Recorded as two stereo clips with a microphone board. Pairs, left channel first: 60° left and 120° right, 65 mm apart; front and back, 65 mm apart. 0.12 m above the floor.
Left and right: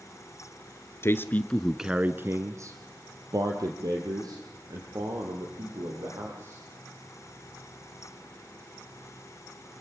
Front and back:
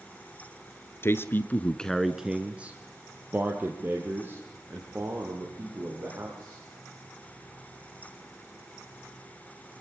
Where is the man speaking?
30° left, 1.5 m; by 6.6 s 125° right, 7.5 m.